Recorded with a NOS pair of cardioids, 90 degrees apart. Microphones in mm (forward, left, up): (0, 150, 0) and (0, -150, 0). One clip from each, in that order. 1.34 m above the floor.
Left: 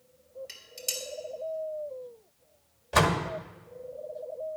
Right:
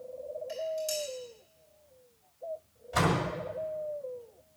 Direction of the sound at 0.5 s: 65° left.